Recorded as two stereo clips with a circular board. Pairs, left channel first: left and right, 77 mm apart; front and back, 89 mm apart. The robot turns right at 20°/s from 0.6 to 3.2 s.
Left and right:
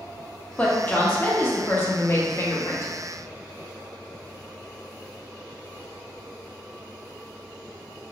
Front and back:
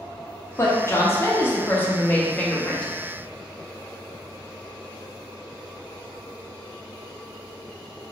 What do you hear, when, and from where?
0.6 s a woman speaking: 30° left, 0.7 m; by 2.9 s 75° left, 0.7 m